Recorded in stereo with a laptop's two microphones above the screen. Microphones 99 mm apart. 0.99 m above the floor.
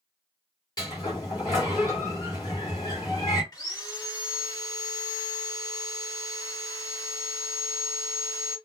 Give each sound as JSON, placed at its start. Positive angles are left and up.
{"t": 0.8, "sound": "a sliding door", "side_deg": 45, "distance_m": 2.0}
{"t": 3.5, "sound": "sawing", "side_deg": 40, "distance_m": 1.5}